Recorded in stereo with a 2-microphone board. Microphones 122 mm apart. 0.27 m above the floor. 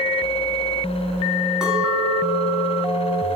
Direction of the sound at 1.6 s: 5° right (ahead or behind).